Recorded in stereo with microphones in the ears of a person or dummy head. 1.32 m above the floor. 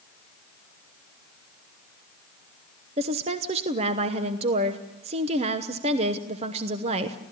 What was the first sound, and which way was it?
A woman speaking, 40° right (ahead or behind).